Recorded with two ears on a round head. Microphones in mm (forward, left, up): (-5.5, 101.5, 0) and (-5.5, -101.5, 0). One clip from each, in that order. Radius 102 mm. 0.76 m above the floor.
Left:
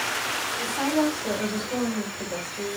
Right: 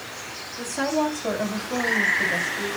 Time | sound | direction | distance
0.6 | a woman speaking | 50° right (ahead or behind) | 5.5 m